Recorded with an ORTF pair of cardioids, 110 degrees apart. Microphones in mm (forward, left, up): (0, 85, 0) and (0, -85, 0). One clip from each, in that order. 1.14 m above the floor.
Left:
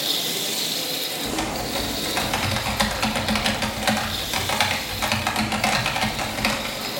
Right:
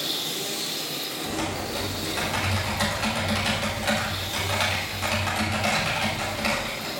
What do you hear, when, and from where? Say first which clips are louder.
0.0 s a machine running: left 4 dB; 40° left, 1.0 m
1.2 s typing on a keyboard: left 3 dB; 50° left, 2 m